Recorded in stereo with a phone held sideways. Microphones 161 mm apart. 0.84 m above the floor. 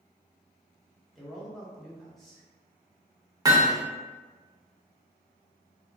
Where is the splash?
I don't hear a splash.